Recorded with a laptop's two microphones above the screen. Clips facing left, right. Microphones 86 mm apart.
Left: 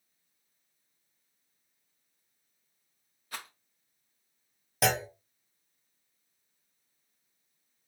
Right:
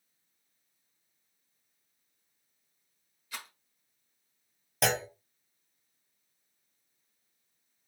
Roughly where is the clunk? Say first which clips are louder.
Left 1 dB; centre.